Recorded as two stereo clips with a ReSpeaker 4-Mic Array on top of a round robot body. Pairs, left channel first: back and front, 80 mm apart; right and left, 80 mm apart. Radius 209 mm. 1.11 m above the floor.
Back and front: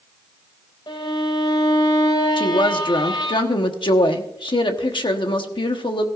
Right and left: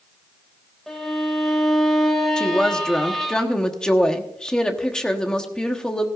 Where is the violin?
Straight behind, 2.5 m.